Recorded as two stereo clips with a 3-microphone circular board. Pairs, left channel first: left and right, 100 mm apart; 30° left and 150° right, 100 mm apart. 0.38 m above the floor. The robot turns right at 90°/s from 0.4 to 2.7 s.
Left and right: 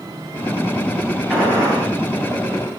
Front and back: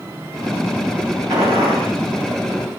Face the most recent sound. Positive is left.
turn(degrees=-50)